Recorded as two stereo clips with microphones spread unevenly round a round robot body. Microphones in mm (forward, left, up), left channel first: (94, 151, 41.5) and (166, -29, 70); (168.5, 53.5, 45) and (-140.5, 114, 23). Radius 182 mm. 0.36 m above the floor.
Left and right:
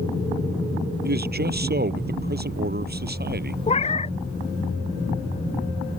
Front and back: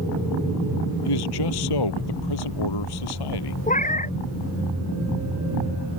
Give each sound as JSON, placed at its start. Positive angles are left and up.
{"t": 1.1, "sound": "a man speaking", "azimuth_deg": -35}
{"t": 3.7, "sound": "a cat meowing", "azimuth_deg": 55}